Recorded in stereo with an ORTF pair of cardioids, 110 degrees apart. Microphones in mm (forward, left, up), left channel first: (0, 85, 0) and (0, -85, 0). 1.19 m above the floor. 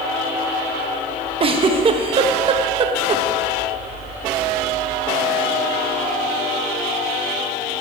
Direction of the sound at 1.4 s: 30° right.